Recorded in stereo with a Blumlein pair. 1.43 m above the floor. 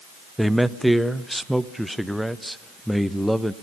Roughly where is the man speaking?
Ahead.